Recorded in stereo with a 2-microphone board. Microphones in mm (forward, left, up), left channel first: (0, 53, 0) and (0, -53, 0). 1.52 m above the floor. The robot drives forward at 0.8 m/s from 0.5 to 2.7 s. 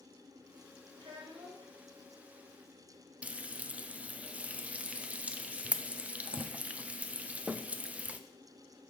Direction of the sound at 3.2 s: 15° right (ahead or behind).